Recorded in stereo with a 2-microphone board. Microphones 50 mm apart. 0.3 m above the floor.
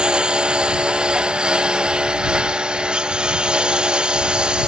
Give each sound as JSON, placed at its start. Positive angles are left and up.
{"t": 0.0, "sound": "a lawn mower", "side_deg": -15}